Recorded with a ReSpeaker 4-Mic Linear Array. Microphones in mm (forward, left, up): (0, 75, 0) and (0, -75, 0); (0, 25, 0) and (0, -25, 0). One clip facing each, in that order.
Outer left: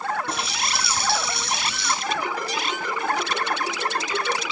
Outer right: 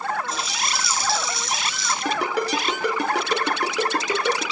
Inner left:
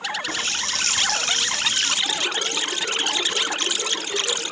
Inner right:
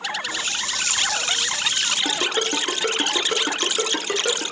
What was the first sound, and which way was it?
A running tap, 60° left (ahead or behind).